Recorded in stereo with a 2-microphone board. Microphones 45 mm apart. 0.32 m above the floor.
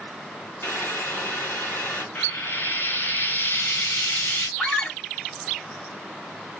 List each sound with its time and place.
0.6 s boiling: 70° left (ahead or behind), 2.5 m
2.1 s frying: 50° left (ahead or behind), 2.5 m
4.6 s a scream: 30° left (ahead or behind), 1.6 m